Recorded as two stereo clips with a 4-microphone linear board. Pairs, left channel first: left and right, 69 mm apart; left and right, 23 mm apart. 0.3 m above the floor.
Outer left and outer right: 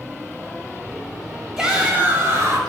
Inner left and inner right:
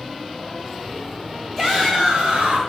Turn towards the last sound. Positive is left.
turn(degrees=-50)  # may be behind; listen again after turning